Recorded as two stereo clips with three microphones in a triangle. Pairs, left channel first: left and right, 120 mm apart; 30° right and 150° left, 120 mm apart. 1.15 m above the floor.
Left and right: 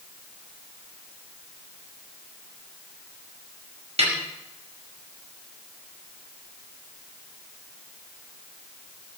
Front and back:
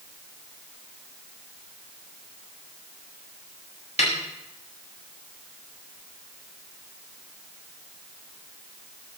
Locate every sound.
4.0 s a snare drum: 55° right, 5.5 m